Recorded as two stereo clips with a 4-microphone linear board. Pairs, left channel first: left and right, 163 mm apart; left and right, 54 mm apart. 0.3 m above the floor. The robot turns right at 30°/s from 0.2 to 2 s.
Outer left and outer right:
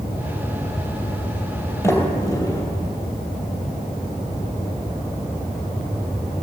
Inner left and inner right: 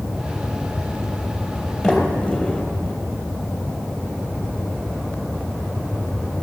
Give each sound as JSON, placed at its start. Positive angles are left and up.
{"t": 1.8, "sound": "a sliding door", "side_deg": 15, "distance_m": 2.5}